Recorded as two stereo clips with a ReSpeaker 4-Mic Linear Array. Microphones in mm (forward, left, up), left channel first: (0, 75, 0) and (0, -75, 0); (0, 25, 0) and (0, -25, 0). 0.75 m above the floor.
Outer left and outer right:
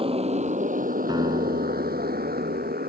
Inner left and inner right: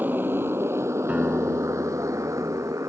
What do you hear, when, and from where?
0.0 s a motorcycle: 40° right (ahead or behind); by 2.9 s 85° right
1.1 s a guitar: 30° right (ahead or behind)